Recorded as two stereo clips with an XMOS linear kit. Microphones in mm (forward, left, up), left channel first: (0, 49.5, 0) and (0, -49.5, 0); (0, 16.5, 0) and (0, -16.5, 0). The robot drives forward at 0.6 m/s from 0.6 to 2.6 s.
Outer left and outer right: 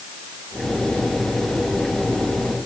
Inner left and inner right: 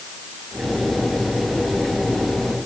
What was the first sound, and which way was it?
Only background noise.